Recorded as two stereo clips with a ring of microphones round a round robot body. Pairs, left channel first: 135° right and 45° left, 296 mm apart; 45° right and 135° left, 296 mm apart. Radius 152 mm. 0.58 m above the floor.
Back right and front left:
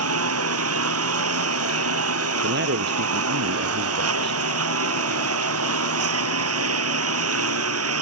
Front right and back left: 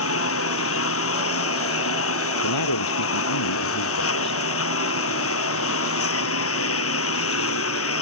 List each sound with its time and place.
0.0 s a lawn mower: straight ahead
2.4 s a man speaking: 10° right